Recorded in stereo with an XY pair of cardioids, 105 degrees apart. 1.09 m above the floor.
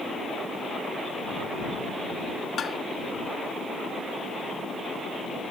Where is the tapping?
45° left.